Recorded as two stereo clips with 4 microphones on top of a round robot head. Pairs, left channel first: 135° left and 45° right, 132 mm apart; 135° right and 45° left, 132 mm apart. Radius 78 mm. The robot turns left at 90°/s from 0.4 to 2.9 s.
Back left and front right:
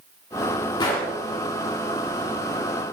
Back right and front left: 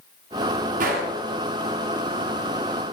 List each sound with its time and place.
0.8 s a gunshot: 75° left, 1.8 m; by 1.1 s 45° left, 1.8 m